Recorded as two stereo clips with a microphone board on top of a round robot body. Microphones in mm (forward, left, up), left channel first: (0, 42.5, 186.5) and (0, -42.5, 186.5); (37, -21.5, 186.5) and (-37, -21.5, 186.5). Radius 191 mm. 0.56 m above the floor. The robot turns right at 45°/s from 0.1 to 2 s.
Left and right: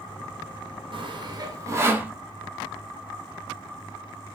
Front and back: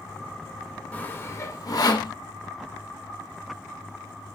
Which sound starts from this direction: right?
Sawing, at 0.9 s.